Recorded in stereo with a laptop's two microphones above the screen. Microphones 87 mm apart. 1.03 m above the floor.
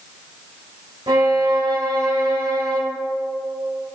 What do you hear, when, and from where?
1.1 s a violin: 70° right (ahead or behind), 3 m